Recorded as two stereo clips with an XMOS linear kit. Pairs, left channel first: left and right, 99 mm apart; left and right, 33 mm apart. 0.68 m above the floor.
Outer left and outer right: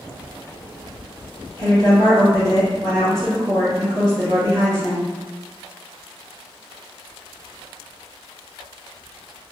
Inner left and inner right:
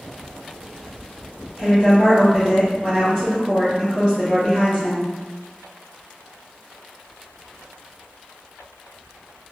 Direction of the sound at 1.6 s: 35° right (ahead or behind).